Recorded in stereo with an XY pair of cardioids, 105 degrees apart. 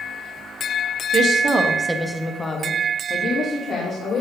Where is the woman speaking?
60° right, 1.4 m; by 4.2 s 60° left, 3 m.